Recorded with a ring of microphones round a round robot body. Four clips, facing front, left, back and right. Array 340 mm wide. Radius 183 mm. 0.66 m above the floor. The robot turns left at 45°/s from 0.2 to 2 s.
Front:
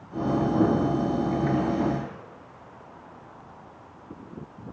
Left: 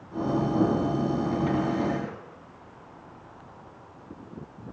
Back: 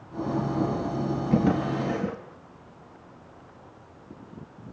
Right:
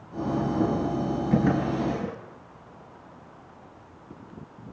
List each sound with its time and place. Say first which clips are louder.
1.3 s a drawer: right 2 dB, back 1 dB; 130° right, 7.5 m; by 2.2 s 165° right, 7.5 m